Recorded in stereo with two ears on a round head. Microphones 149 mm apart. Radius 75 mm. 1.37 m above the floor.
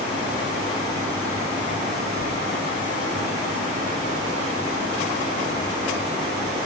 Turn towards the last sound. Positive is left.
No sound to turn to.